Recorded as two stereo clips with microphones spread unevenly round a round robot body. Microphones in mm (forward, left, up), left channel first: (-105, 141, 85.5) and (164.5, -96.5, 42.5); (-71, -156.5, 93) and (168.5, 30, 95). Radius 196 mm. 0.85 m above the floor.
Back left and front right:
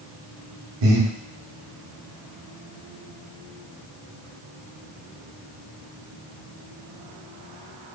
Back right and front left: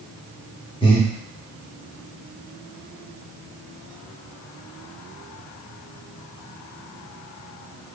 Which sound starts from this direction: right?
Breathing, at 0.8 s.